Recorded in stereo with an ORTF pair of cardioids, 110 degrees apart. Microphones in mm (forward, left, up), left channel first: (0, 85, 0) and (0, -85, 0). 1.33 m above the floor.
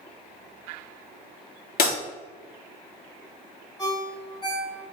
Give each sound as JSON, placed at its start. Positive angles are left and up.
{"t": 1.8, "sound": "breaking glass", "azimuth_deg": 60, "distance_m": 1.8}
{"t": 3.8, "sound": "a ringtone", "azimuth_deg": 25, "distance_m": 1.8}